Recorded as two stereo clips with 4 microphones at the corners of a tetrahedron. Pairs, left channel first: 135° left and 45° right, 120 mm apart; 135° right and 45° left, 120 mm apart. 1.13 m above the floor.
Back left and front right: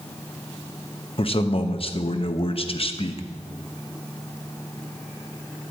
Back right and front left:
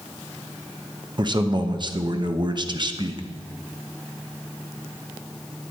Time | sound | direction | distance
1.2 | a man speaking | 95° left | 0.8 m